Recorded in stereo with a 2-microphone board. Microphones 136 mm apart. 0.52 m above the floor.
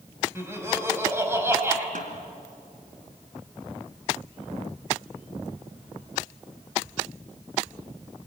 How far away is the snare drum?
About 2 m.